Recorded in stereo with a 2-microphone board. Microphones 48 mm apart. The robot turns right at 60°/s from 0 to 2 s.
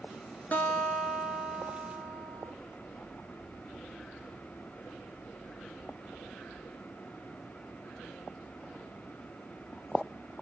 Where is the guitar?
125° left, 0.6 m; by 2.5 s 145° right, 0.6 m.